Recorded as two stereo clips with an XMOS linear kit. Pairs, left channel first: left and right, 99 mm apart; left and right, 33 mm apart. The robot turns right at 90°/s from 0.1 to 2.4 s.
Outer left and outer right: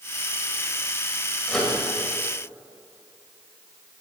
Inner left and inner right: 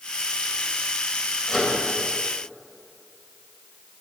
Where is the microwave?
10° left (ahead or behind), 1.7 m; by 1.8 s 10° right (ahead or behind), 1.7 m.